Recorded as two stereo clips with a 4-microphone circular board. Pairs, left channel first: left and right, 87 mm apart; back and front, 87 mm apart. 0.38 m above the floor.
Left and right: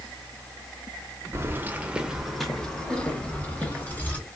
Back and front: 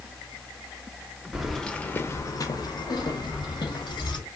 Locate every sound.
1.3 s keys jangling: 75° right, 0.6 m; by 4.2 s 160° left, 1.5 m